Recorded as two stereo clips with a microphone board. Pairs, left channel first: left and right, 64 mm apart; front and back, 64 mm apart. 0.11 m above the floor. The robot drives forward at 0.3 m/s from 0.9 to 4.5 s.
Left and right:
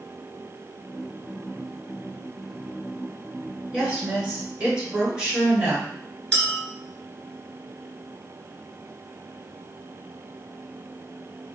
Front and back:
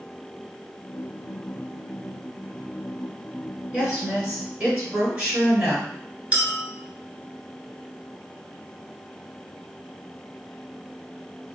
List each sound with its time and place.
3.7 s a woman speaking: 150° right, 1.4 m; by 5.9 s 155° right, 1.5 m
6.3 s a clink: 150° left, 0.9 m